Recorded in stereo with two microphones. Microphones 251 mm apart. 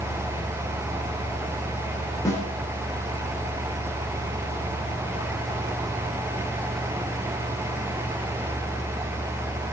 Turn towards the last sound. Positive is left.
turn(degrees=10)  # may be behind; listen again after turning